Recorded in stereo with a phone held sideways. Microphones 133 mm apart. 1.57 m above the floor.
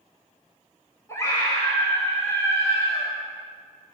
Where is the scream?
25° left (ahead or behind), 6.5 m.